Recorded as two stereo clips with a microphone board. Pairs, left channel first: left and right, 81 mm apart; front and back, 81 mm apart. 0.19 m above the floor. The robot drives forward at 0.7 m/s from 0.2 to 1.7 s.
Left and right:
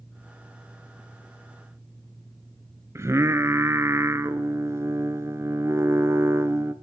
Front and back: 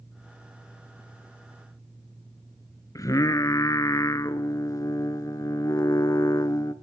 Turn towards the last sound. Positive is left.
turn(degrees=-40)